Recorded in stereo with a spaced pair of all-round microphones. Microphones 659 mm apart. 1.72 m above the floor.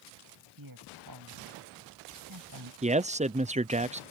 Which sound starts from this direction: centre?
A man speaking, at 2.8 s.